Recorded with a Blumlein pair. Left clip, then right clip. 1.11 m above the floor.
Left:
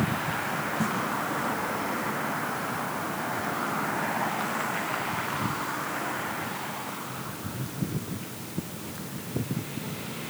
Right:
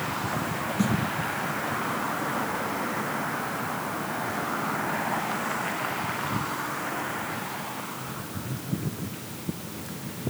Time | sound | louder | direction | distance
0.8 | a snare drum | right 4 dB | 70° right | 4.5 m